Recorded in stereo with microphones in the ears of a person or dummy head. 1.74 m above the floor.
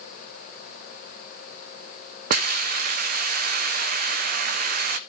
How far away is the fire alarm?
I don't hear a fire alarm.